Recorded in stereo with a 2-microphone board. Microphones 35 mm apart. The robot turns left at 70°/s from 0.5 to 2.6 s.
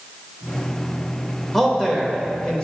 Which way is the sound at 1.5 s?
5° left (ahead or behind).